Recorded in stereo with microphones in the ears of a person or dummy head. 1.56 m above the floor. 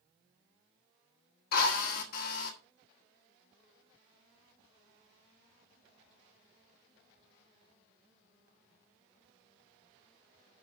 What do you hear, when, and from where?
1.5 s a drill: 50° left (ahead or behind), 1.6 m